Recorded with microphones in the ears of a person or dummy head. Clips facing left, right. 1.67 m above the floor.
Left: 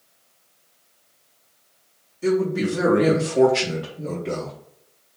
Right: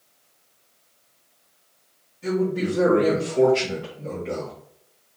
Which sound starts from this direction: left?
A man speaking, at 2.2 s.